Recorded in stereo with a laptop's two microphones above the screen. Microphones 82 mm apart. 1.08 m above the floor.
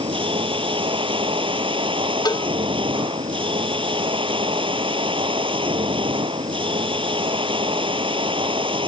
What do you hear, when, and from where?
0.0 s a machine running: 90° right
2.2 s a cowbell: 55° left (ahead or behind)